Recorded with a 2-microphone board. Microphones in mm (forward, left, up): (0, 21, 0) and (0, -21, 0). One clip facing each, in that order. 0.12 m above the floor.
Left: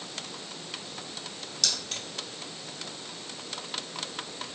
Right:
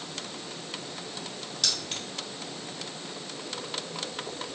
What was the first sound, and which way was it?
Keys jangling, 15° right (ahead or behind).